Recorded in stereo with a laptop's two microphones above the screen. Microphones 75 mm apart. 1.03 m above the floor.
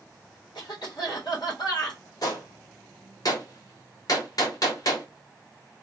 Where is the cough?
80° left, 1.9 m.